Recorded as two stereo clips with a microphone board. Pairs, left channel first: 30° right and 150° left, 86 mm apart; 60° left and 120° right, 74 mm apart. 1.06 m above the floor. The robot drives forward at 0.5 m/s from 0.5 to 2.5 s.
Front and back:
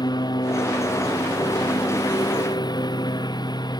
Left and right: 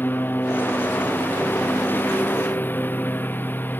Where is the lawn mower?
Straight ahead.